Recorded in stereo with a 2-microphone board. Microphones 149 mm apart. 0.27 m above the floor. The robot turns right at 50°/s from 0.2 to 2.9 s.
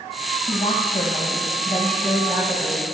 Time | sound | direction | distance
0.5 | a woman speaking | 95° left | 1.4 m